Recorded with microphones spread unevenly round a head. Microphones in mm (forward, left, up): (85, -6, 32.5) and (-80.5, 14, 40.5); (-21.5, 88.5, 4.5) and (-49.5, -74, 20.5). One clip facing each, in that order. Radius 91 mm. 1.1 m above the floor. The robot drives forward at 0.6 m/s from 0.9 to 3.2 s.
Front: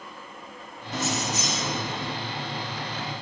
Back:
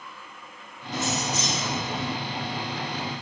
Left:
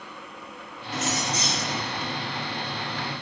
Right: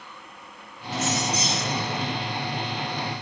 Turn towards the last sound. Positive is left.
turn(degrees=-110)